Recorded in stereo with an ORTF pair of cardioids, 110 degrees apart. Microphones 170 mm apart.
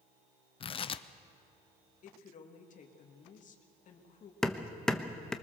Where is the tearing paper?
35° left, 0.7 m.